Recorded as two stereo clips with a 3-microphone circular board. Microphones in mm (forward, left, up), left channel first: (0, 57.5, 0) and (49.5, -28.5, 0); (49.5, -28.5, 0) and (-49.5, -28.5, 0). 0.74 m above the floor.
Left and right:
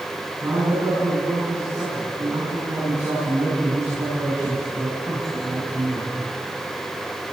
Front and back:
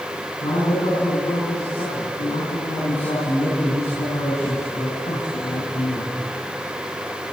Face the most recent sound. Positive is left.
turn(degrees=0)